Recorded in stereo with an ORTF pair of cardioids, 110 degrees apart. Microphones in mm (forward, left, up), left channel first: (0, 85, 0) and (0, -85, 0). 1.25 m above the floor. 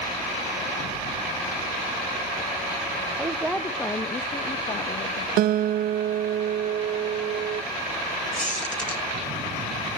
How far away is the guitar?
About 0.8 m.